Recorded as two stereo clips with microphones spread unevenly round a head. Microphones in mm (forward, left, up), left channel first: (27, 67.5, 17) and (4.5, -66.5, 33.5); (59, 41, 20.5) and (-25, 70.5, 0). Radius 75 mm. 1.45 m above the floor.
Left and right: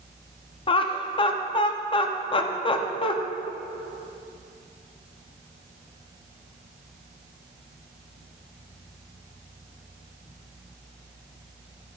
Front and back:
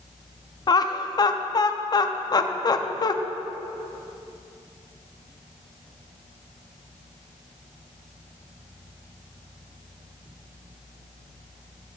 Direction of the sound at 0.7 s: 30° left.